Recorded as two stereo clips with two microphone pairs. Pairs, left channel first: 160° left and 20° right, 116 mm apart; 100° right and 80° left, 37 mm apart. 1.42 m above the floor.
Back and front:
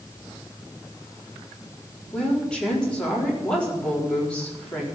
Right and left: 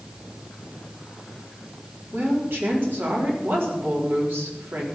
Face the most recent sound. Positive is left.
turn(degrees=80)